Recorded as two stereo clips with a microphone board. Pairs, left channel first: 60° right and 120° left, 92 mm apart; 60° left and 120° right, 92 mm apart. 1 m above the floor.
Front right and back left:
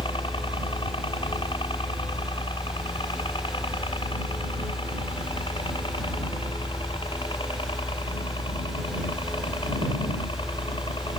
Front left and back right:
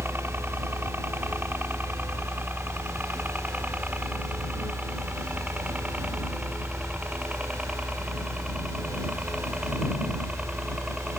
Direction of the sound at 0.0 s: 55° right.